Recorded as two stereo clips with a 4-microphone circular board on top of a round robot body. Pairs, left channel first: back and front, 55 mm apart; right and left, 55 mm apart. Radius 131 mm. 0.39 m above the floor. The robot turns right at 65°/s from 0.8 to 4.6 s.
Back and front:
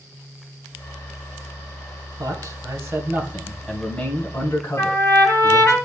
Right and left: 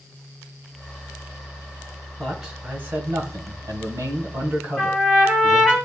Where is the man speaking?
10° right, 3.5 m; by 5.8 s 150° left, 3.5 m.